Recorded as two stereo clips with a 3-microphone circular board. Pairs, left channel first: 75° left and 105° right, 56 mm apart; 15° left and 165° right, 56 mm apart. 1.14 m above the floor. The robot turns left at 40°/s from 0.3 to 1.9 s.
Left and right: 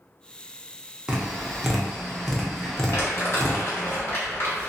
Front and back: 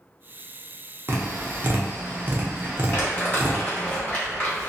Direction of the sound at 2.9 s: 65° left.